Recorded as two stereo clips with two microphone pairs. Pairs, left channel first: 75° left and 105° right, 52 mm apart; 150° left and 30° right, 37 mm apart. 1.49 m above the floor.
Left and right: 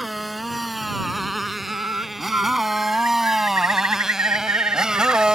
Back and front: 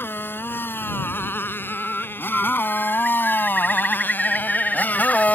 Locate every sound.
0.0 s a motorcycle: 165° left; by 5.3 s 175° right
1.7 s a bird: 130° right